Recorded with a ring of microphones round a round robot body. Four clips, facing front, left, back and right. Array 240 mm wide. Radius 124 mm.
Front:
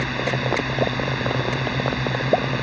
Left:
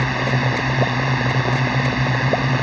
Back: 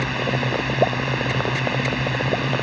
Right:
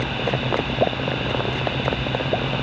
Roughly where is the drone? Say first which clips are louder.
Left 3 dB, back 1 dB; left.